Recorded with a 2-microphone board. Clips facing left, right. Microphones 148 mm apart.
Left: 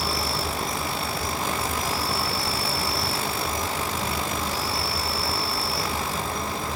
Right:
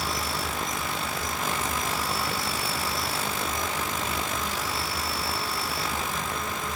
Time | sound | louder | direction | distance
0.0 | an insect | left 3 dB | 30° left (ahead or behind) | 0.7 m